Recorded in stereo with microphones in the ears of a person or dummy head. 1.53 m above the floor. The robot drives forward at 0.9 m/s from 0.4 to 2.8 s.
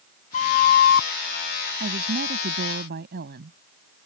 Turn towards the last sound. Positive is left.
turn(degrees=-55)  # may be behind; listen again after turning